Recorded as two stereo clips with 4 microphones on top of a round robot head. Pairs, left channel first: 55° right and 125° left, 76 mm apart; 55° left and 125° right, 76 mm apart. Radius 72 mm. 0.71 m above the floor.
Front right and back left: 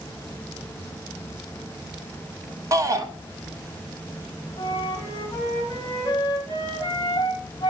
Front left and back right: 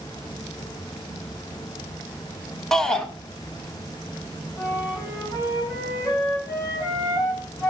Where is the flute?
Straight ahead, 2.5 m.